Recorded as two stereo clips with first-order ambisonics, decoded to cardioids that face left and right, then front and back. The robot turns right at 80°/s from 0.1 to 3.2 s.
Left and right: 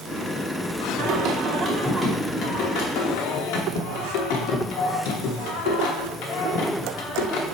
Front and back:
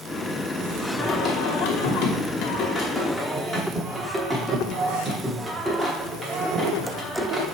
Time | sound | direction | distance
1.0 | singing | 75° right | 1.3 m